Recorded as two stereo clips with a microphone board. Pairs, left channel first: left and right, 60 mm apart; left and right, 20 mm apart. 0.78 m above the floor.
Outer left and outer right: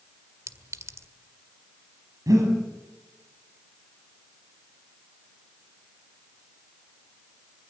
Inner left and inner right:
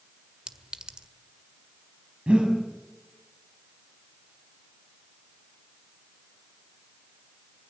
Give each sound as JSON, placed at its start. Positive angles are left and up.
{"t": 0.5, "sound": "a clink", "side_deg": -55, "distance_m": 1.8}
{"t": 2.3, "sound": "breathing", "side_deg": -80, "distance_m": 7.5}